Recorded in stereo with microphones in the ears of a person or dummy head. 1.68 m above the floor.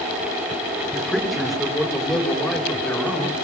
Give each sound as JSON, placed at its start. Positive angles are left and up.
{"t": 0.9, "sound": "a man speaking", "side_deg": -5, "distance_m": 5.5}